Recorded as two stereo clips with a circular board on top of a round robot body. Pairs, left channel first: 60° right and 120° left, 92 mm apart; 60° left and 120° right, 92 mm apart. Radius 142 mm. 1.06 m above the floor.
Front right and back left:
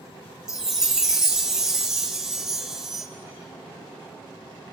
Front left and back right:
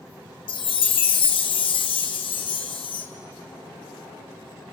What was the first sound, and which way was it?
A chime, 35° left.